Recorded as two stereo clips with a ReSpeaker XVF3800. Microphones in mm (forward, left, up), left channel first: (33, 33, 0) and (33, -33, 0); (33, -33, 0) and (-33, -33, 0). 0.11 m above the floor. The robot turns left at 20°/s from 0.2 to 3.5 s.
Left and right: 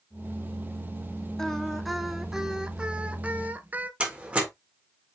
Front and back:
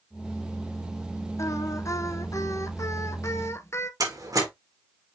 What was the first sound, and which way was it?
Singing, 10° left.